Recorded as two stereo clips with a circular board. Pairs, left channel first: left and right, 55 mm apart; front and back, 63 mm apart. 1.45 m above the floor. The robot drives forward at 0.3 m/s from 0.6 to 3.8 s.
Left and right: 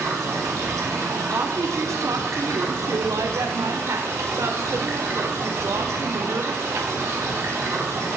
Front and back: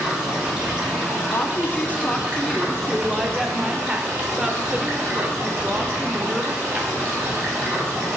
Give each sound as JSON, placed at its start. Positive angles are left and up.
{"t": 0.0, "sound": "running water", "azimuth_deg": -105, "distance_m": 2.0}
{"t": 1.3, "sound": "a woman speaking", "azimuth_deg": -55, "distance_m": 0.9}